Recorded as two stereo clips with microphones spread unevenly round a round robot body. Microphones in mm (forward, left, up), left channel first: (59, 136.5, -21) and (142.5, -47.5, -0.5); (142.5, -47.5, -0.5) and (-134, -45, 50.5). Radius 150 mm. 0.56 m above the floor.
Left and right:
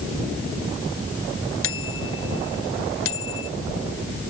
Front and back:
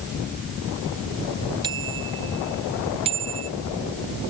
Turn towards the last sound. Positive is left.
turn(degrees=110)